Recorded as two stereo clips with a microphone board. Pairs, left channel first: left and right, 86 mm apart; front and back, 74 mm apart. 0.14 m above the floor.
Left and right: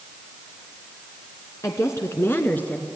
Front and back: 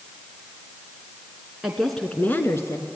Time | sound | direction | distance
1.6 | a woman speaking | 100° left | 1.6 m